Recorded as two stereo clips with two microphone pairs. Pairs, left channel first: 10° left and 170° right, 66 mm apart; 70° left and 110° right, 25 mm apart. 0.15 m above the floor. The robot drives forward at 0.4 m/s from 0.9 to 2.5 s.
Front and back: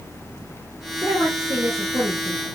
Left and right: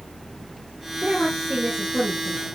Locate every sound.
1.0 s a woman speaking: 145° right, 2.5 m; by 2.5 s 150° right, 3 m